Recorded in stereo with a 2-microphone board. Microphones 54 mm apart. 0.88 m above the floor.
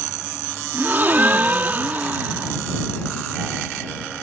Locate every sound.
0.7 s a gasp: 35° right (ahead or behind)